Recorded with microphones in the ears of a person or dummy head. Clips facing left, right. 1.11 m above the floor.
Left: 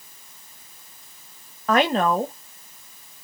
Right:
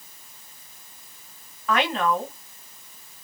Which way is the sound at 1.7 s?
35° left (ahead or behind).